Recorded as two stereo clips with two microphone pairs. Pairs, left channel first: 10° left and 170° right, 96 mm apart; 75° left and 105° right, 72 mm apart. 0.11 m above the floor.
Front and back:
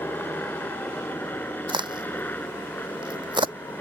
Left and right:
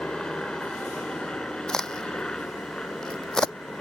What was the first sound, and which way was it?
A helicopter, 20° left.